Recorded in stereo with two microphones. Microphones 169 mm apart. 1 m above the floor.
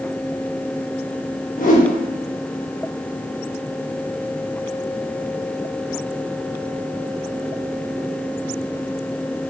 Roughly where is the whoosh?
Left.